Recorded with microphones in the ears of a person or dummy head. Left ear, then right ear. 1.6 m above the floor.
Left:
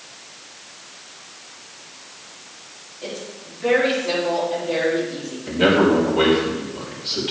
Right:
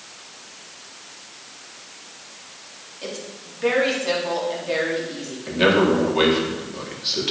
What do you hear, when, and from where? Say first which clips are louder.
3.0 s a woman speaking: left 1 dB; 80° right, 4 m
5.5 s a man speaking: left 1 dB; 30° right (ahead or behind), 3.5 m